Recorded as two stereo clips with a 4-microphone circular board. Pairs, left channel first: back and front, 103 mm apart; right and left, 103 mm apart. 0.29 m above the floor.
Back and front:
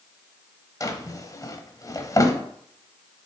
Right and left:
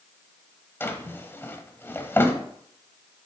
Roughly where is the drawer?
Behind right.